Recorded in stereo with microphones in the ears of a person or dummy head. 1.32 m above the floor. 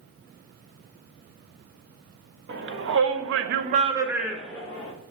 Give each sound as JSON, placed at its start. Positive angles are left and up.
{"t": 2.5, "sound": "a shout", "side_deg": -65, "distance_m": 1.1}